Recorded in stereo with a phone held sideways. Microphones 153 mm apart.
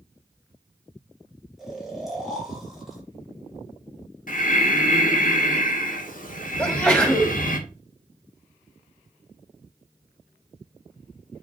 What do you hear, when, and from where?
1.6 s snoring: centre (ahead or behind), 2.5 m
4.3 s breathing: 60° left (ahead or behind), 1.3 m
6.6 s a sneeze: 5° left (ahead or behind), 3 m